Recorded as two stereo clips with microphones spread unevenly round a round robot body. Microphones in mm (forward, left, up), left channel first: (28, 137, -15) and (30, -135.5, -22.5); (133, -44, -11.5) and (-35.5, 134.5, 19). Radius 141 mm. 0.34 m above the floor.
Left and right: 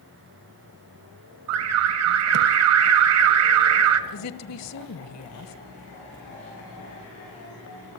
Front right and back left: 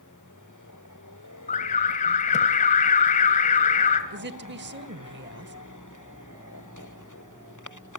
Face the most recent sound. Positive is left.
turn(degrees=95)